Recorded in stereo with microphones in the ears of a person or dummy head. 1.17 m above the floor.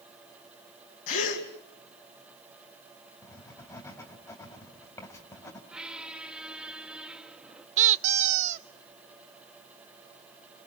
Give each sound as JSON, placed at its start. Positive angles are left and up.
{"t": 1.1, "sound": "a gasp", "side_deg": 55, "distance_m": 2.5}
{"t": 3.2, "sound": "writing", "side_deg": 15, "distance_m": 3.0}
{"t": 5.7, "sound": "a squeak", "side_deg": -5, "distance_m": 0.9}
{"t": 7.8, "sound": "a squeak", "side_deg": -45, "distance_m": 0.6}